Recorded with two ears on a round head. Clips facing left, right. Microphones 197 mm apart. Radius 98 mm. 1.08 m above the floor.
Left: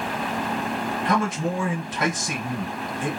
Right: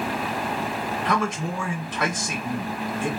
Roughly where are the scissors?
I don't hear scissors.